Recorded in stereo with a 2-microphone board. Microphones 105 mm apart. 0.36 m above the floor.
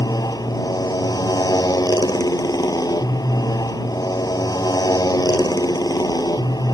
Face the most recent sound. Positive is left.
turn(degrees=40)  # may be behind; listen again after turning